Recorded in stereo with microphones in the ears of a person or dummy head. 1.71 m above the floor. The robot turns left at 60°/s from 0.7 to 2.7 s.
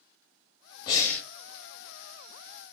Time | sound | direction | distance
0.9 | breathing | 30° left (ahead or behind) | 0.9 m